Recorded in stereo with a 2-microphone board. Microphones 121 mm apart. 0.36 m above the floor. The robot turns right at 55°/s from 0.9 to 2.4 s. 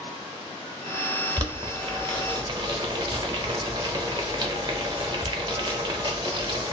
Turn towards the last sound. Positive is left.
turn(degrees=-35)  # may be behind; listen again after turning